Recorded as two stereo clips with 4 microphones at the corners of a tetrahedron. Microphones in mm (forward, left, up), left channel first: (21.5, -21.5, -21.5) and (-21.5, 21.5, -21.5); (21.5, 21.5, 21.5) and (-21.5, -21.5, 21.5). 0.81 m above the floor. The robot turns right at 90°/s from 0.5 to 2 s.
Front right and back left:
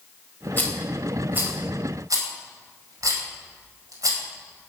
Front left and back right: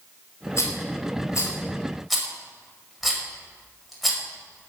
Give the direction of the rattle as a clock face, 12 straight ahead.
12 o'clock.